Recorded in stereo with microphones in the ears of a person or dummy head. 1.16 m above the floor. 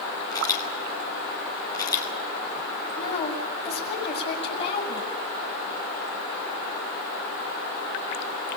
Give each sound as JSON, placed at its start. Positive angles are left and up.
{"t": 0.3, "sound": "a camera shutter", "side_deg": 30, "distance_m": 5.0}
{"t": 3.0, "sound": "a woman speaking", "side_deg": 40, "distance_m": 7.5}